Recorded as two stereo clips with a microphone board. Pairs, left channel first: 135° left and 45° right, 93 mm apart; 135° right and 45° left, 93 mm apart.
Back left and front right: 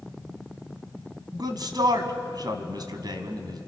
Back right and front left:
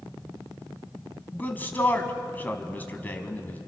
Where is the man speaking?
70° right, 1.9 m.